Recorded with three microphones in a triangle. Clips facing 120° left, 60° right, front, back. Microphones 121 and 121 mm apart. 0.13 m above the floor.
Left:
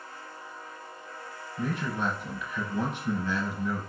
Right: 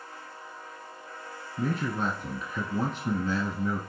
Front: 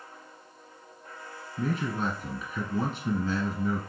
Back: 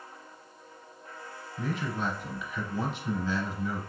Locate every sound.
1.6 s a man speaking: 30° right, 1.5 m